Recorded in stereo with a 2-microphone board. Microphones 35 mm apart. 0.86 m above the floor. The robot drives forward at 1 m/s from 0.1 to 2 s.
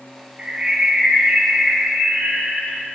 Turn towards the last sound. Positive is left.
turn(degrees=-15)  # may be behind; listen again after turning